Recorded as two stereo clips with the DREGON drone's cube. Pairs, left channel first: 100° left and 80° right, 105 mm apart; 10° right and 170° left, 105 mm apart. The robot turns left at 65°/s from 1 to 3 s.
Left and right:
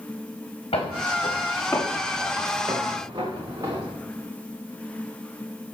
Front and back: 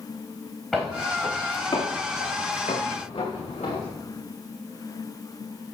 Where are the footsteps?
80° left, 4.5 m; by 3.9 s 25° right, 4.5 m.